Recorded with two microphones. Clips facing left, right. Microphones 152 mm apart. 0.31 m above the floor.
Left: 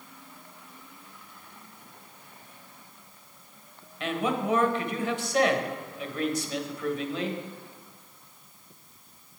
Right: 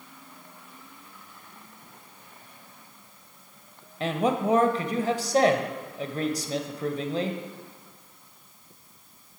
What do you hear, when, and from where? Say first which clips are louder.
4.0 s a man speaking: right 3 dB; 35° right (ahead or behind), 1.0 m